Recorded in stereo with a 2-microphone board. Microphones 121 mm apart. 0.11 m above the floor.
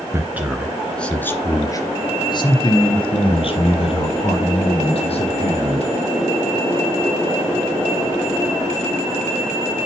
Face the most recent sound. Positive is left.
turn(degrees=55)  # may be behind; listen again after turning